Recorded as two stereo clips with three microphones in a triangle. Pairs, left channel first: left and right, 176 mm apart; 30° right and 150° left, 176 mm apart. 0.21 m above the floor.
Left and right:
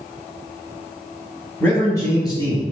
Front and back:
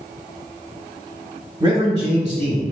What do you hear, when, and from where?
1.6 s a man speaking: 155° left, 1.1 m; by 2.6 s 145° left, 1.4 m